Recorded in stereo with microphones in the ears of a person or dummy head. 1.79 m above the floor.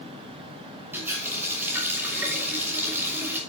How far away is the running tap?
About 2.5 m.